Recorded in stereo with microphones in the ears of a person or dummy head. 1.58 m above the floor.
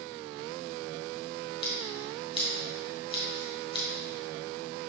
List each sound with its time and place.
1.6 s scissors: 35° left (ahead or behind), 1.5 m